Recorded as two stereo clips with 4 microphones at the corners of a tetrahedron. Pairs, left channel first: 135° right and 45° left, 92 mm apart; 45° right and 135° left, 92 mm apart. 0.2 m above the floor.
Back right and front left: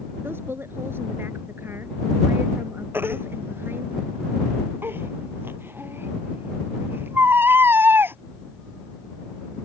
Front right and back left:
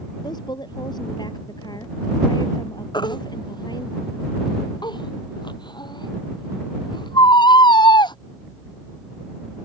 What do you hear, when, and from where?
0.2 s a woman speaking: 15° right
2.9 s a baby crying: 20° right